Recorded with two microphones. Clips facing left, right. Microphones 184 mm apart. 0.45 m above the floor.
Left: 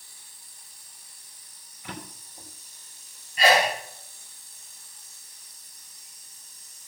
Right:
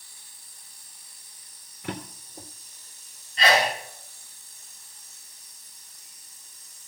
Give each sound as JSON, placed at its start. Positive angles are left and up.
{"t": 1.8, "sound": "a drawer", "side_deg": -65, "distance_m": 3.0}
{"t": 3.4, "sound": "a sneeze", "side_deg": 10, "distance_m": 6.0}